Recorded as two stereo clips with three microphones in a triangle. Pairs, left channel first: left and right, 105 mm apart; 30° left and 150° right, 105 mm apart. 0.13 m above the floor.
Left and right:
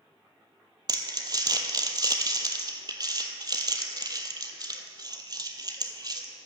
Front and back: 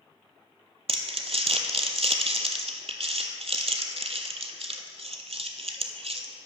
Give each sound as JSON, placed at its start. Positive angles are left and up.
{"t": 0.9, "sound": "crumpling", "azimuth_deg": -140, "distance_m": 0.9}